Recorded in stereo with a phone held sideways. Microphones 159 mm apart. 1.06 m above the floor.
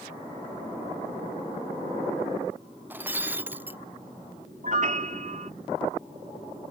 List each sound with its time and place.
2.9 s breaking glass: 10° right (ahead or behind)
4.6 s a piano: 50° right (ahead or behind)